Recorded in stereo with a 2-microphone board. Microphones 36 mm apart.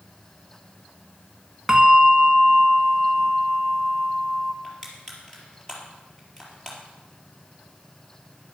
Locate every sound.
1.7 s a bell: 15° right (ahead or behind), 0.9 m
4.6 s crushing: 20° left (ahead or behind), 4 m